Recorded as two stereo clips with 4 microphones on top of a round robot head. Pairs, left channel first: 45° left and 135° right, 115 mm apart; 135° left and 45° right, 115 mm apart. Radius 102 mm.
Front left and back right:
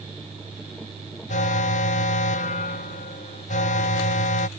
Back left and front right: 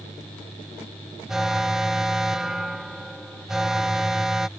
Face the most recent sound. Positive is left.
turn(degrees=45)